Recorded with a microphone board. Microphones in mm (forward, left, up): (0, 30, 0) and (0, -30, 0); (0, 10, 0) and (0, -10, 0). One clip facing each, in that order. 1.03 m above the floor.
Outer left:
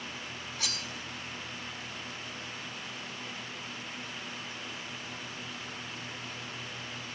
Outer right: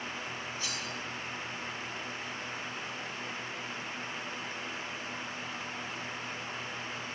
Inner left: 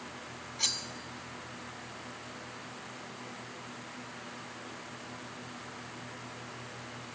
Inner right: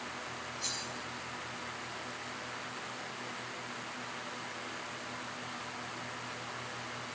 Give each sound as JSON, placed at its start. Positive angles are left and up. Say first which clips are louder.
{"t": 0.6, "sound": "cutlery clinking", "louder": "even, inner left 7 dB", "side_deg": 75, "distance_m": 1.2}